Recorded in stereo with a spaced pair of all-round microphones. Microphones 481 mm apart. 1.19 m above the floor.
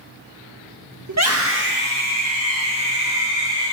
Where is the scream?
35° right (ahead or behind), 1.3 m; by 3.7 s 10° right (ahead or behind), 5 m.